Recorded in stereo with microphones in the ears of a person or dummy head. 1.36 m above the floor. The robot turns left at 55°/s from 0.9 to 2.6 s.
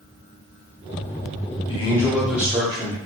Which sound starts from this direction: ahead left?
A man speaking, at 1.7 s.